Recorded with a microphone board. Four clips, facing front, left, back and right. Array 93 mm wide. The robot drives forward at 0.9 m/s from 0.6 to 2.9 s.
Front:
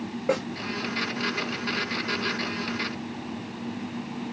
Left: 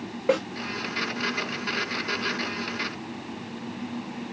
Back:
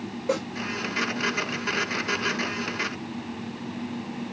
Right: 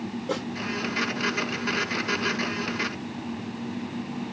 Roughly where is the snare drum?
Ahead left.